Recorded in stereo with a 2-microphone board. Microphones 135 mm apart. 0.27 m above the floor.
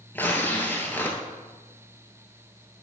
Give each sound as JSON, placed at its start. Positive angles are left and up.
{"t": 0.1, "sound": "tearing paper", "side_deg": 15, "distance_m": 1.5}